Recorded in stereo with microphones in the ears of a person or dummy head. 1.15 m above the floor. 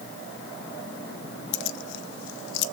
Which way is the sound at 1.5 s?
70° left (ahead or behind).